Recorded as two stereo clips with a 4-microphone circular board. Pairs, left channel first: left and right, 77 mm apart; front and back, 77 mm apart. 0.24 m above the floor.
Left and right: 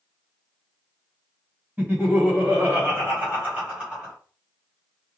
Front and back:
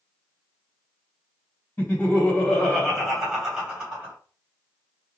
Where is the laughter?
45° right, 1.9 m; by 4.2 s 145° right, 1.7 m.